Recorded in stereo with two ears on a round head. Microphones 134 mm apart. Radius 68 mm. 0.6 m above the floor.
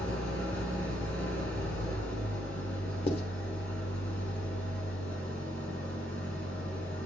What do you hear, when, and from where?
0.0 s an engine running: 15° left (ahead or behind), 3.5 m
3.1 s writing: 40° left (ahead or behind), 0.9 m